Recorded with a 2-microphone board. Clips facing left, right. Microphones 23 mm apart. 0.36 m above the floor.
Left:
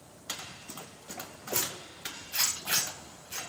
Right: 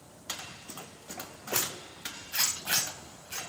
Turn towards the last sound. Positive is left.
turn(degrees=-65)  # may be behind; listen again after turning